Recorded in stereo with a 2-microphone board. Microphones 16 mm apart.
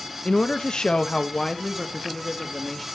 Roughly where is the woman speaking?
Left.